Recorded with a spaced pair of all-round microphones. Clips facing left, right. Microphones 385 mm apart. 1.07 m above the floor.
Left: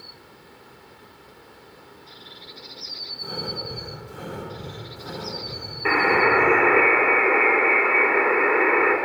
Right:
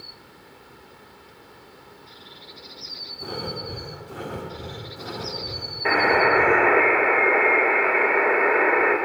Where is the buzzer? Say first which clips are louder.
Even; 15° left (ahead or behind), 1.5 m.